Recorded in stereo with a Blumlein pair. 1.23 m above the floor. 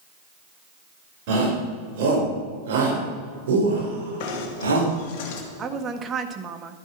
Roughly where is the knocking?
Ahead left.